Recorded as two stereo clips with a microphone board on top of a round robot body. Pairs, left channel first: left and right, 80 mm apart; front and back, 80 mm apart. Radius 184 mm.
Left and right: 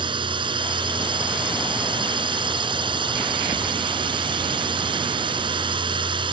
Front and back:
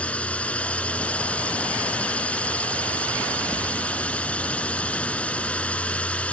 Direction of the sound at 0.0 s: 75° right.